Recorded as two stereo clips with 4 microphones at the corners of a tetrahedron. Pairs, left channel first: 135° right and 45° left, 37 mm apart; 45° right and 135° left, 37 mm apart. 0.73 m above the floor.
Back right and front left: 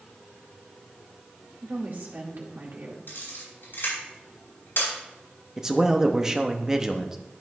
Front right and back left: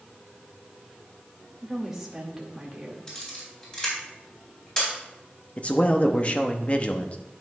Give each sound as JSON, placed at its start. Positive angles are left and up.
{"t": 1.6, "sound": "a woman speaking", "azimuth_deg": 55, "distance_m": 2.0}
{"t": 3.1, "sound": "a camera shutter", "azimuth_deg": -115, "distance_m": 4.0}
{"t": 5.6, "sound": "a man speaking", "azimuth_deg": -20, "distance_m": 0.8}